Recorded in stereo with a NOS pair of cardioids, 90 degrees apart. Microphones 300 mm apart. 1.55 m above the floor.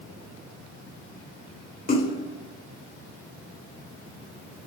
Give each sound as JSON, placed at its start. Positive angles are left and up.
{"t": 1.9, "sound": "a splash", "azimuth_deg": 30, "distance_m": 3.5}